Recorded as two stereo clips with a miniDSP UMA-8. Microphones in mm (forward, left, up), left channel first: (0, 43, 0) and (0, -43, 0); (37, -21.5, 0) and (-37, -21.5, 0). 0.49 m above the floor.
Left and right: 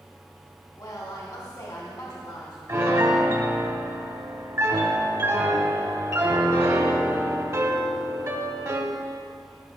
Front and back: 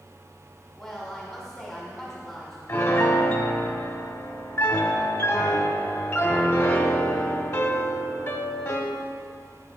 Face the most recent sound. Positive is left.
turn(degrees=-50)